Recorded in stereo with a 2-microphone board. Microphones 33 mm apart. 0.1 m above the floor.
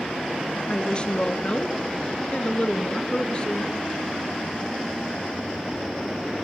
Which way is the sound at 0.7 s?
30° left (ahead or behind).